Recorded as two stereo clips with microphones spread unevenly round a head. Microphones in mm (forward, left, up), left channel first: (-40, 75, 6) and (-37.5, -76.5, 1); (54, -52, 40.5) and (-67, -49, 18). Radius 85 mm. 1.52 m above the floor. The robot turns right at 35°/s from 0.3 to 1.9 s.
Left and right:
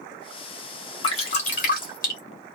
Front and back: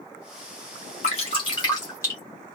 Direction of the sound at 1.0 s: 35° left.